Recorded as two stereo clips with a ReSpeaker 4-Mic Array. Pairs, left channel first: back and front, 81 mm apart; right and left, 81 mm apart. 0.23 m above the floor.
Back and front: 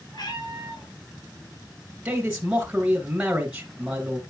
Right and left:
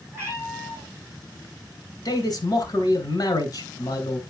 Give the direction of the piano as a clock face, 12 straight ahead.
I don't hear a piano.